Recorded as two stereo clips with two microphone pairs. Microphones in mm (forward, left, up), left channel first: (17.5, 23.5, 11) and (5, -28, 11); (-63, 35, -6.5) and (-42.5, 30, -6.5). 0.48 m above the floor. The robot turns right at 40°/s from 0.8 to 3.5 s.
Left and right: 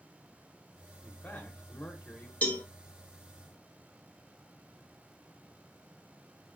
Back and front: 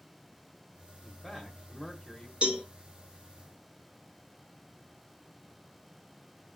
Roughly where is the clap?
No clap in this recording.